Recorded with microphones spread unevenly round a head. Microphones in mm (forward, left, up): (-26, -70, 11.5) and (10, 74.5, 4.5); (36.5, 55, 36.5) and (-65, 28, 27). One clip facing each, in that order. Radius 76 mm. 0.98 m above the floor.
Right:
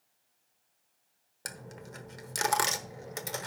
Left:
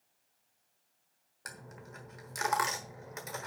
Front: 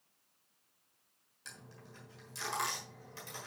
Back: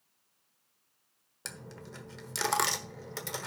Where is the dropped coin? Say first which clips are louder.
Right 4 dB, back 9 dB; 155° right, 1.1 m.